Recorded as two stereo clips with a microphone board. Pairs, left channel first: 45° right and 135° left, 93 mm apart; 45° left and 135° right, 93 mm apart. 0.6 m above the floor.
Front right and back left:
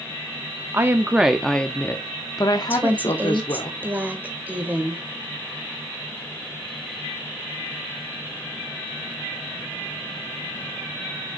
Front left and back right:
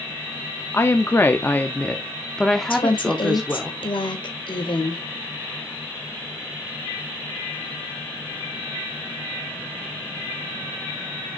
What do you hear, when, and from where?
0.7 s a woman speaking: 90° left, 0.8 m; by 3.7 s 50° right, 1.4 m
2.7 s a woman speaking: 65° left, 1.9 m